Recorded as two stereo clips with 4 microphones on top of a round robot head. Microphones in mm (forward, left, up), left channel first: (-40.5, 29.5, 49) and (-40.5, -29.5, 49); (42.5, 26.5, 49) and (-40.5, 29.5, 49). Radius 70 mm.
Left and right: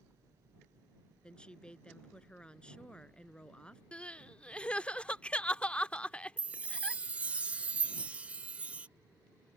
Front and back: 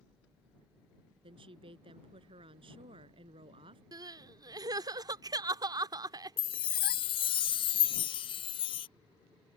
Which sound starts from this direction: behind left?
Crying, at 3.9 s.